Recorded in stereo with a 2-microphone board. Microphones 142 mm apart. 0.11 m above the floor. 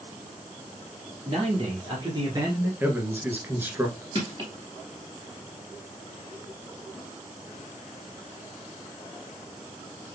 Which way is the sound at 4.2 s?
35° right (ahead or behind).